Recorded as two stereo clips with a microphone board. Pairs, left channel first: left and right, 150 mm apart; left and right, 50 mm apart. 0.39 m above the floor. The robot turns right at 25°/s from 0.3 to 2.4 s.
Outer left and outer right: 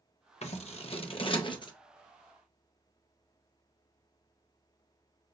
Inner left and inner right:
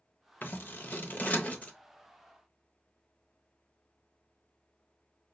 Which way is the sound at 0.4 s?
45° left (ahead or behind).